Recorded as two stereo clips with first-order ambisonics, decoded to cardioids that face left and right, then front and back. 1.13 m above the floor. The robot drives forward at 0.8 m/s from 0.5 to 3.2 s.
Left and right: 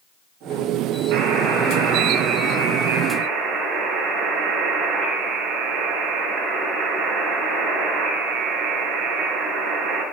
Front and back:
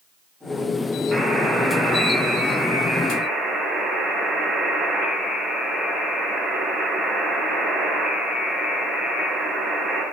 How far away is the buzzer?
About 3.5 m.